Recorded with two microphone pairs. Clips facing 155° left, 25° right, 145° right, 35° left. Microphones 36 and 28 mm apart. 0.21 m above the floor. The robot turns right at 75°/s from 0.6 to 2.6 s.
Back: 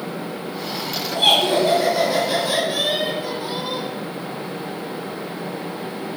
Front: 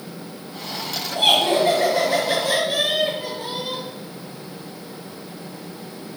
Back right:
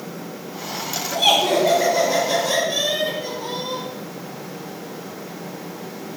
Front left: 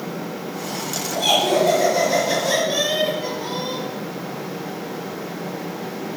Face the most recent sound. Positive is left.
turn(degrees=-20)